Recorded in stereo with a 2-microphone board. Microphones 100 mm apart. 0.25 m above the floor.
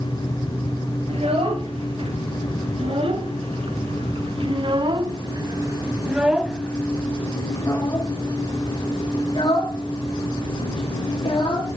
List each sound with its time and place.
1.1 s a child speaking: 75° right (ahead or behind), 3 m; by 11.7 s 60° left (ahead or behind), 3 m